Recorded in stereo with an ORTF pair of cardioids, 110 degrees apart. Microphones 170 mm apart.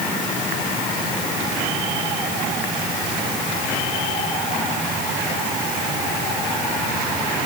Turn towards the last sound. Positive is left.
No sound to turn to.